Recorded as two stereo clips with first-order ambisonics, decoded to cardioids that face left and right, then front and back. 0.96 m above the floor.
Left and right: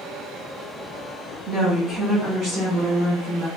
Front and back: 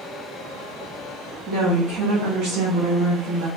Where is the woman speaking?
150° right, 1.5 m; by 3.5 s 165° left, 1.2 m.